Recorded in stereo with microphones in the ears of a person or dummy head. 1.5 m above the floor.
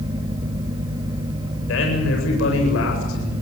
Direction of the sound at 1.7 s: 85° left.